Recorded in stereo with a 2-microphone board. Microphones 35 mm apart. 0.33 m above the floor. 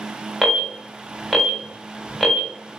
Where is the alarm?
Centre (ahead or behind), 1.4 m.